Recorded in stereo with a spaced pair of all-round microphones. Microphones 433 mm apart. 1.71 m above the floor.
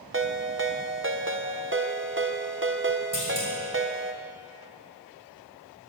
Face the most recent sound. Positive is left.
turn(degrees=45)  # may be behind; listen again after turning